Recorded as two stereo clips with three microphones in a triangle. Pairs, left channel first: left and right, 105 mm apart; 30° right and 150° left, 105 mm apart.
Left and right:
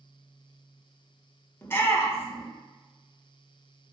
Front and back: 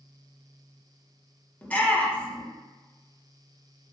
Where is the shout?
35° left, 1.5 m.